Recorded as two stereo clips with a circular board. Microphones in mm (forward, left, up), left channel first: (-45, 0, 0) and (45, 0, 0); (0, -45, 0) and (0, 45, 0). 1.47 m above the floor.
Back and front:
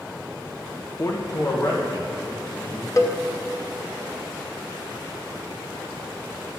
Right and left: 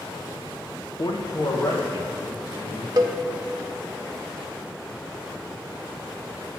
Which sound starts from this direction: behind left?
A cowbell, at 3.0 s.